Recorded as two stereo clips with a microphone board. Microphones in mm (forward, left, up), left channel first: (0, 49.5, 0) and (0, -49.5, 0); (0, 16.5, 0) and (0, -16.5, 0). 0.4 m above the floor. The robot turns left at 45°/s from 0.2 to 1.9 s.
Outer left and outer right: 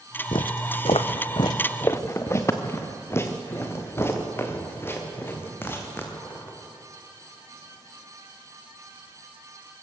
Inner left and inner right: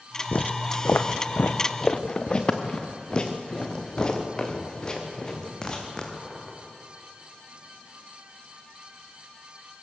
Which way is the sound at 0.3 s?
55° left (ahead or behind).